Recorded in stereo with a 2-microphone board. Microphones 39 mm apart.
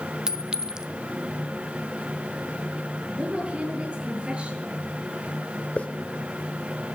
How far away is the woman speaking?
About 8.5 m.